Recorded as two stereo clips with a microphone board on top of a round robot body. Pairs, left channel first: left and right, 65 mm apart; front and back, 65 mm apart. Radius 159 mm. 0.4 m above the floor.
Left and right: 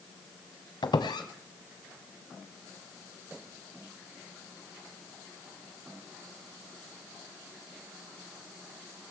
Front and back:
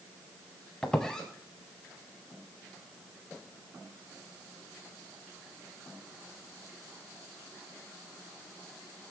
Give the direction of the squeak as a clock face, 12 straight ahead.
9 o'clock.